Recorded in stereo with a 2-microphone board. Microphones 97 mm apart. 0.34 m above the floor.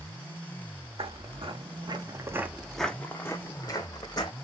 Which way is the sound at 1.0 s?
70° right (ahead or behind).